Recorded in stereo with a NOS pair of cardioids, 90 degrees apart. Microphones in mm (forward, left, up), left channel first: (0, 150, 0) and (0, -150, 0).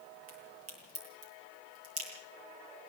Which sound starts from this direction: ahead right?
A crack, at 0.3 s.